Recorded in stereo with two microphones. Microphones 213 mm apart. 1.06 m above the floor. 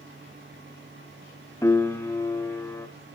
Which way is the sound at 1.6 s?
15° left (ahead or behind).